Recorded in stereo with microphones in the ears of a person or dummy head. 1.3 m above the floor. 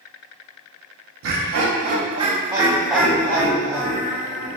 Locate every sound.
1.2 s laughter: 70° right (ahead or behind), 0.7 m; by 4.6 s 20° left (ahead or behind), 1.5 m